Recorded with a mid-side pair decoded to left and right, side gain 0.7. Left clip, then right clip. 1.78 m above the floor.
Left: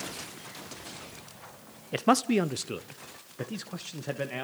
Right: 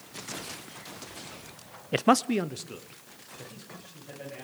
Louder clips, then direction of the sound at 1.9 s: Right 1 dB; 25° right.